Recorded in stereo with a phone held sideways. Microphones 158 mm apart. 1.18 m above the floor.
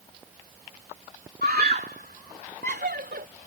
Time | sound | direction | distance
1.4 | a scream | 80° right | ?